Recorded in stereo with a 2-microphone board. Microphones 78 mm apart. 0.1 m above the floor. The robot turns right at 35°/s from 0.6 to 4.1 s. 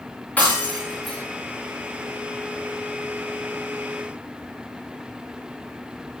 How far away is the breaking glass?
About 6.5 m.